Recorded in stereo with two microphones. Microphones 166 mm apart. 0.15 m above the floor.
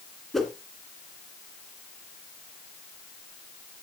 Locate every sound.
0.3 s a whoosh: centre (ahead or behind), 1.6 m